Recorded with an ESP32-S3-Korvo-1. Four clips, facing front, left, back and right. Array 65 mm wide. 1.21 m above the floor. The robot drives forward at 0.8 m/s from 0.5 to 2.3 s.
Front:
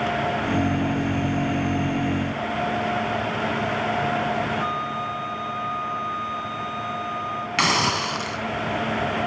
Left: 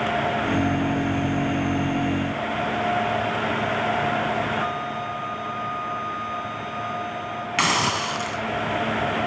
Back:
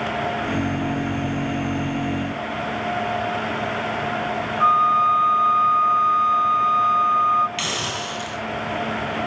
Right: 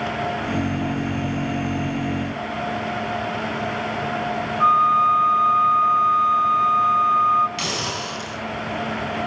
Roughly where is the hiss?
Ahead left.